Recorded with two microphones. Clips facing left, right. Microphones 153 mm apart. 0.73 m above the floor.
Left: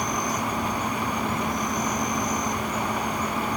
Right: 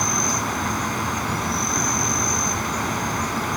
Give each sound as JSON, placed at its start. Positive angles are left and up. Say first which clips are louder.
{"t": 0.0, "sound": "an insect", "louder": "right 1 dB", "side_deg": -85}